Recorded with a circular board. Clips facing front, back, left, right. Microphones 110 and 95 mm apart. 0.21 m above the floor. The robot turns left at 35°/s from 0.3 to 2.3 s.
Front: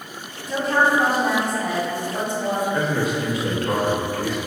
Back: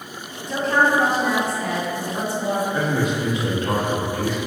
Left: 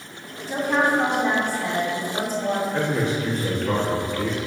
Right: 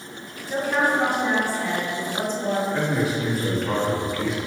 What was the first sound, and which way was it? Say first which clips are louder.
A woman speaking: even, left 1 dB; 80° left.